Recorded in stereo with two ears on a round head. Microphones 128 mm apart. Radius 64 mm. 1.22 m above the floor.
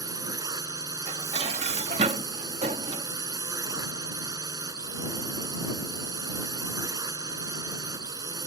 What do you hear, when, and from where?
0.0 s a drone: 25° right (ahead or behind)
1.1 s dishes clattering: 45° right (ahead or behind)